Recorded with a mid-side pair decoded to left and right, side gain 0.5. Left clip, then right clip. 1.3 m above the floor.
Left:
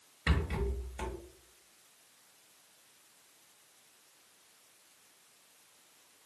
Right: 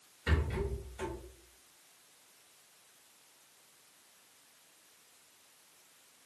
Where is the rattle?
50° left, 1.2 m.